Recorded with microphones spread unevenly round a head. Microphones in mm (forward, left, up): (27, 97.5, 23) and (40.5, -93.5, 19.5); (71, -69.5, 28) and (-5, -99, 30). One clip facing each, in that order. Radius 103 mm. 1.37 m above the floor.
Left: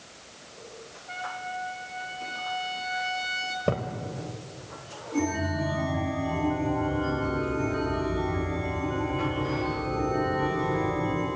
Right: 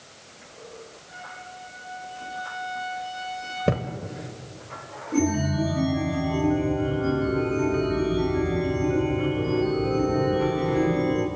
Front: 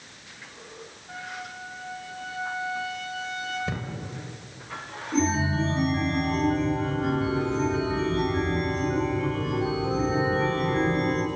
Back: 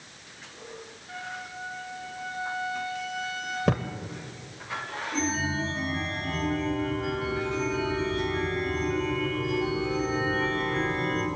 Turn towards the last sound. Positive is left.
turn(degrees=-35)